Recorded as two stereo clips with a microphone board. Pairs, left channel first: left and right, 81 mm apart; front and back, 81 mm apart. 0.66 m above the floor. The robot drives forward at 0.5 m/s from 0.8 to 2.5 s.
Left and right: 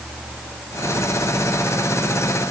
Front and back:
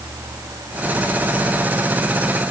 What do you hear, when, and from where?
Only background noise.